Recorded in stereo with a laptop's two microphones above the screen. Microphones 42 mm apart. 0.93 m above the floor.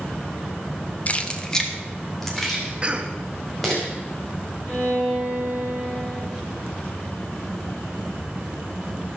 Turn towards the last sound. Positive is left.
turn(degrees=25)  # may be behind; listen again after turning